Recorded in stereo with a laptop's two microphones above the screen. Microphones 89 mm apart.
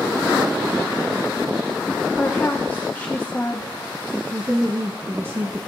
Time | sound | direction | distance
2.1 | a woman speaking | 20° left (ahead or behind) | 0.9 m
4.3 | a woman speaking | 25° right (ahead or behind) | 1.0 m